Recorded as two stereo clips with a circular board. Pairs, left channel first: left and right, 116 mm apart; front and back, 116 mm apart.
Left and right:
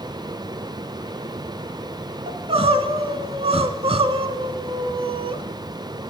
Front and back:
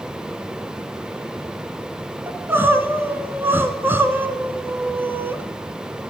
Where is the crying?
110° right, 0.7 m.